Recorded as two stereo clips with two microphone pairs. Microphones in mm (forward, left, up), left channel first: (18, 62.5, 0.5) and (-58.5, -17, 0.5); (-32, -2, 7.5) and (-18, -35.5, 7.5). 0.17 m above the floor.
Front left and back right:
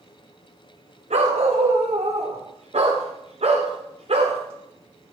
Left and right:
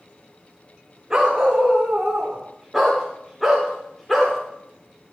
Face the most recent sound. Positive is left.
turn(degrees=-155)